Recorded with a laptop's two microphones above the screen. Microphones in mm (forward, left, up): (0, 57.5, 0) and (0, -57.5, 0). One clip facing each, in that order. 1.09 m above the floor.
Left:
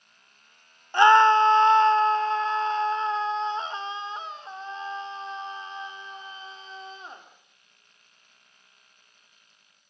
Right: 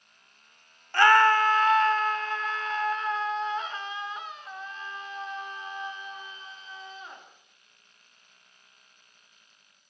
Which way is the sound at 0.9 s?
20° left (ahead or behind).